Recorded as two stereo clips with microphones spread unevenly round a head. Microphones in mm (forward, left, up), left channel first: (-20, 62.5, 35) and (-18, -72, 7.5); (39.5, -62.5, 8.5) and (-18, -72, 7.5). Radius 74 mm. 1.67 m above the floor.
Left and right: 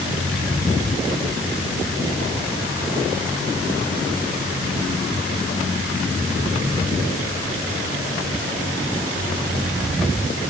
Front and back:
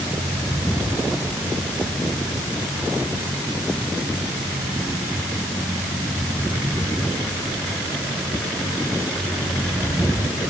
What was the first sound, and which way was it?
Only background noise.